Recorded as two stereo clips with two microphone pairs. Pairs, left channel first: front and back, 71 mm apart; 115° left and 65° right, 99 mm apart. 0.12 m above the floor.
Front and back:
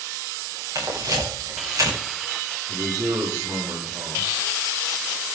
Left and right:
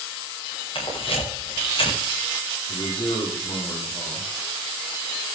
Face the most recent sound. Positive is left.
turn(degrees=145)